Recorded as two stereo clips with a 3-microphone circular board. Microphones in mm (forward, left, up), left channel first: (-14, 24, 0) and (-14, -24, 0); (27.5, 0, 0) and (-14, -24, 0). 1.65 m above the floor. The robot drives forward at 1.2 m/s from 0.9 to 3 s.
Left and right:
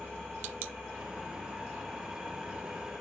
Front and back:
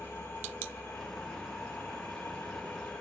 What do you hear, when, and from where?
0.0 s an engine running: 5° right, 7 m; by 3.0 s 10° right, 4.5 m